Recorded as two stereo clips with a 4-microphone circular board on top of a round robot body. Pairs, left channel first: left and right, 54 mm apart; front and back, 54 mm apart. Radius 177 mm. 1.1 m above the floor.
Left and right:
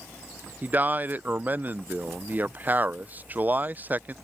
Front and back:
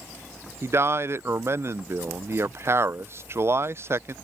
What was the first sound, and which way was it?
A man speaking, 145° right.